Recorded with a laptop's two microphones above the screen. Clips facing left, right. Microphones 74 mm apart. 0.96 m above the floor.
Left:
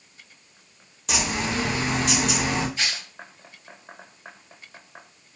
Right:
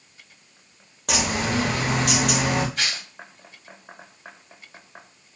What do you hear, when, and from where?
1.1 s a bird: 60° right (ahead or behind), 1.2 m
2.8 s tearing paper: 65° right (ahead or behind), 2.5 m